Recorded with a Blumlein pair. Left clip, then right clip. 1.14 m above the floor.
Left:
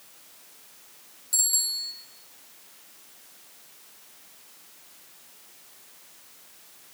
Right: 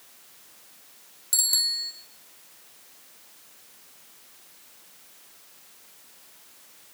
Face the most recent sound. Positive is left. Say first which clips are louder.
# right 3 dB
turn(degrees=-25)